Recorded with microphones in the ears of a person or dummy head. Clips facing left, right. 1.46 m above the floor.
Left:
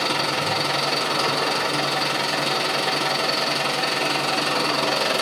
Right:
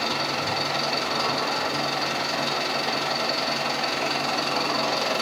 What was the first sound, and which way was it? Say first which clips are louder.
An engine running: left 3 dB; 50° left (ahead or behind).